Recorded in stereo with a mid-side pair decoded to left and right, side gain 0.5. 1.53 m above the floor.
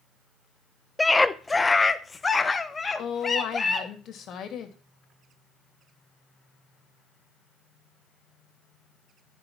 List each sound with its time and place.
1.0 s a scream: 15° left, 0.8 m; by 3.9 s 30° left, 2.5 m
3.0 s a woman speaking: 60° left, 2.5 m